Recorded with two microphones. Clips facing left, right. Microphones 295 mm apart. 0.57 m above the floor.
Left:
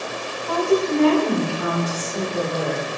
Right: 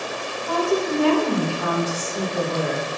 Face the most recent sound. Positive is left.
turn(degrees=35)  # may be behind; listen again after turning